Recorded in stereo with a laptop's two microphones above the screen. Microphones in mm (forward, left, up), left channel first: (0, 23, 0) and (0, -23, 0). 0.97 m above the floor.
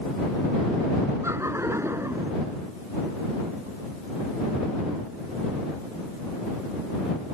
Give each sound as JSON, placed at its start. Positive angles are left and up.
{"t": 1.2, "sound": "laughter", "side_deg": -85}